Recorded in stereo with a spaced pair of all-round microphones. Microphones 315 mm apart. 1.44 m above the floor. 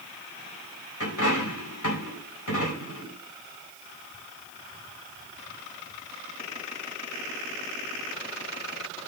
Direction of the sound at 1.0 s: 70° left (ahead or behind).